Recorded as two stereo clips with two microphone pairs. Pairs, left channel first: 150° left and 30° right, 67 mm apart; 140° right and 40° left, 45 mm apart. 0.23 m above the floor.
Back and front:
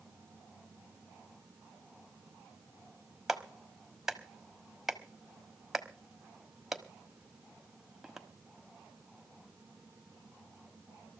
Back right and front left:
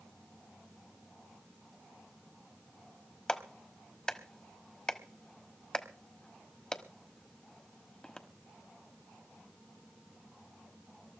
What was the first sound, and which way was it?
A clap, 105° right.